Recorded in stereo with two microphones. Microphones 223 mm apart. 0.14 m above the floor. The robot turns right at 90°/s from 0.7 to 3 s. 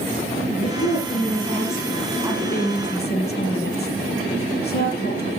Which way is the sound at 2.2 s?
15° right.